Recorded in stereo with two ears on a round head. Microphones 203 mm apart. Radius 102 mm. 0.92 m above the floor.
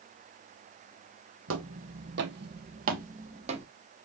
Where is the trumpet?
I don't hear a trumpet.